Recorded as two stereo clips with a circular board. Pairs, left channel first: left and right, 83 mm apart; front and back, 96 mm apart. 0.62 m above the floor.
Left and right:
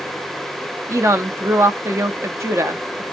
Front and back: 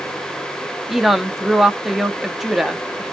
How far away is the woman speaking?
About 0.6 m.